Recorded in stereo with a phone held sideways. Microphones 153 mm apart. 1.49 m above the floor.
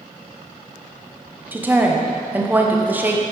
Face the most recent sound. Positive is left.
turn(degrees=-10)  # may be behind; listen again after turning